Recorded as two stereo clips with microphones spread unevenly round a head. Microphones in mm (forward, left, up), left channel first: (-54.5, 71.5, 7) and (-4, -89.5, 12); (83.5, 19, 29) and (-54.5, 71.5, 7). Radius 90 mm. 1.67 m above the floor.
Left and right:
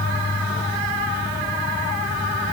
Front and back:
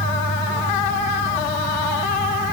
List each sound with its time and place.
Only background noise.